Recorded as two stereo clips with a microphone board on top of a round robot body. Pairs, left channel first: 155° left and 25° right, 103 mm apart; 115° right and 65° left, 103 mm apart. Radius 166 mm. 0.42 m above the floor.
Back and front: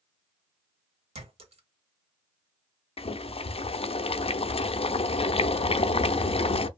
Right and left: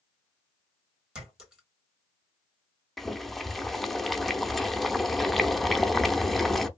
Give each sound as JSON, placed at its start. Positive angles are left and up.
{"t": 1.1, "sound": "a clink", "azimuth_deg": -15, "distance_m": 1.5}
{"t": 3.0, "sound": "boiling", "azimuth_deg": 160, "distance_m": 0.5}